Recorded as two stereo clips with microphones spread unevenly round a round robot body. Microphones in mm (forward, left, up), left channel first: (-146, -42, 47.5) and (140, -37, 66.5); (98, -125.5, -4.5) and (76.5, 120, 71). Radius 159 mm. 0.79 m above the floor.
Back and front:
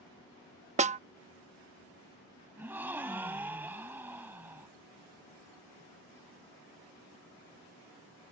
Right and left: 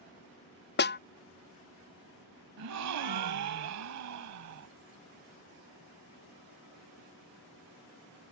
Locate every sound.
0.8 s a snare drum: 65° right
2.6 s a gasp: 85° left